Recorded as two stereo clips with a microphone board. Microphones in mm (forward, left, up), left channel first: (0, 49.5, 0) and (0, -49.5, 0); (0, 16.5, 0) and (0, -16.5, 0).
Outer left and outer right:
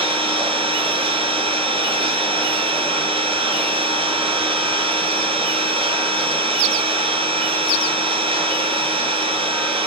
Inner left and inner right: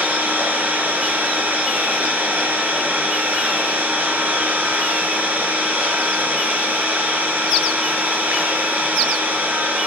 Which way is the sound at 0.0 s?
70° right (ahead or behind).